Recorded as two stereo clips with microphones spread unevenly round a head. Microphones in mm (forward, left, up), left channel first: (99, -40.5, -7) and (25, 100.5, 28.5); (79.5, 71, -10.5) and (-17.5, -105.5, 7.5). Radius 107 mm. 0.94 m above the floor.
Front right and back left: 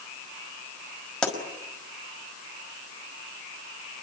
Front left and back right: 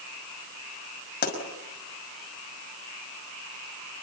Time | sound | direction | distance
1.2 | a pop | 25° left | 5.5 m